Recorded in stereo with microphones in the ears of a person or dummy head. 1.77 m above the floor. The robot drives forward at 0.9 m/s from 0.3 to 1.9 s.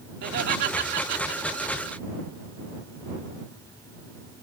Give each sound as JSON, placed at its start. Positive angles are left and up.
{"t": 0.2, "sound": "laughter", "side_deg": -55}